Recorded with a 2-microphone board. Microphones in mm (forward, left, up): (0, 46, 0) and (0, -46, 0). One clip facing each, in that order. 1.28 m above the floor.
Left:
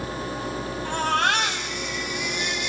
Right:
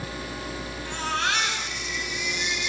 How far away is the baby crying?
About 6.5 m.